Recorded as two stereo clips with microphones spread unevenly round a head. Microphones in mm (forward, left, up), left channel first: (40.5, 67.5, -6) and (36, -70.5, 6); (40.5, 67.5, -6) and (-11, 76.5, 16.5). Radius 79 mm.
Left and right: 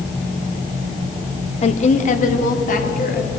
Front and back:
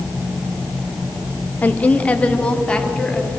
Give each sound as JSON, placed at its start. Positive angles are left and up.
{"t": 1.6, "sound": "a woman speaking", "azimuth_deg": 45, "distance_m": 1.3}